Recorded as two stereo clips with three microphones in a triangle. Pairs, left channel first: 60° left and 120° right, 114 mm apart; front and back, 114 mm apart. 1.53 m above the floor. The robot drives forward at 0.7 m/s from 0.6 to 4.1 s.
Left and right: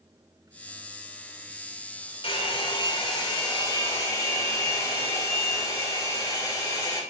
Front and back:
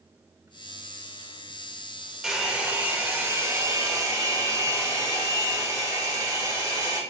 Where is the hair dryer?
95° left, 2.5 m; by 7.0 s 125° left, 3 m.